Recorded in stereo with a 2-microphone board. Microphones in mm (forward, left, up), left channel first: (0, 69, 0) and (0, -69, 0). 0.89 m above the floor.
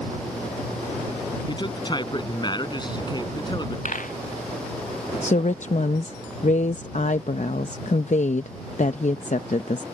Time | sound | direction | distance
1.5 | a man speaking | 30° left (ahead or behind) | ?
3.9 | a dropped coin | 70° left (ahead or behind) | ?
5.2 | a woman speaking | 60° left (ahead or behind) | ?